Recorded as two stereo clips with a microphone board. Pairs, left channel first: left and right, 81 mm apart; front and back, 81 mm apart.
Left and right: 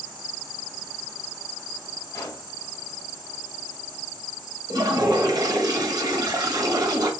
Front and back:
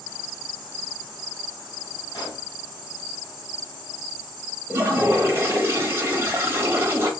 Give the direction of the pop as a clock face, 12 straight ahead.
11 o'clock.